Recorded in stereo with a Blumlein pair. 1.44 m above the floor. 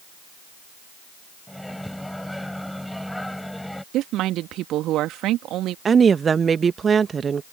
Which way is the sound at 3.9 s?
35° right.